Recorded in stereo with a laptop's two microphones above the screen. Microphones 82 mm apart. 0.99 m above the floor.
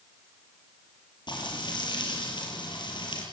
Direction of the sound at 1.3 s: 65° left (ahead or behind).